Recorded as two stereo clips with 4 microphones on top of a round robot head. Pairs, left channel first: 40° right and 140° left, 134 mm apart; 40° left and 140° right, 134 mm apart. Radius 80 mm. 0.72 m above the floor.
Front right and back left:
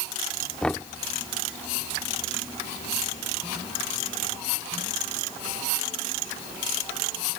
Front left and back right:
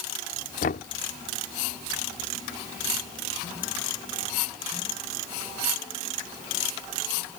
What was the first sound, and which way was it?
Knocking, 45° left.